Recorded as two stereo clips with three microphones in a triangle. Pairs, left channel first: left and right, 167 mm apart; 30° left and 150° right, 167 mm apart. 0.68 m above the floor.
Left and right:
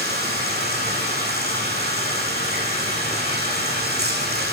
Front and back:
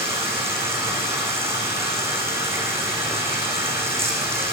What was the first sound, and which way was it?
Running water, 75° right.